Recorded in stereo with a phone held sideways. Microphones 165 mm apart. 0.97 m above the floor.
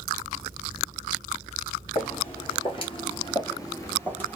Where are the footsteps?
35° left (ahead or behind), 1.4 m; by 4.4 s 10° left (ahead or behind), 1.2 m.